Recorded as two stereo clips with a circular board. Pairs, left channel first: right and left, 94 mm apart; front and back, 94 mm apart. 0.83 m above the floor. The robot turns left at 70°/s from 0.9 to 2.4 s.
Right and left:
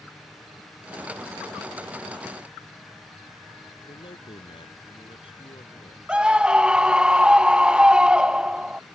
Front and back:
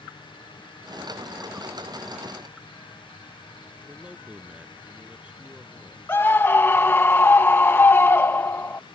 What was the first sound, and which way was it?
A man speaking, 105° right.